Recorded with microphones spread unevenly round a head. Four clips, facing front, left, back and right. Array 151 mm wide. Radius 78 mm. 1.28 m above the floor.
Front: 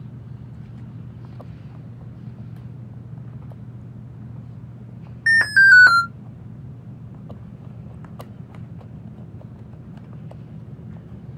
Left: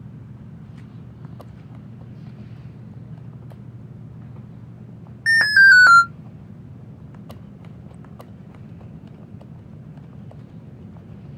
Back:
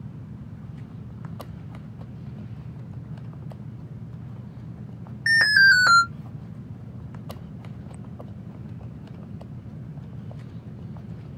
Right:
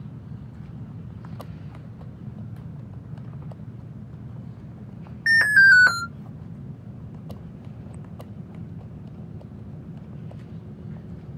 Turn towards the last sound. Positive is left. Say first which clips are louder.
# left 3 dB, front 4 dB
turn(degrees=85)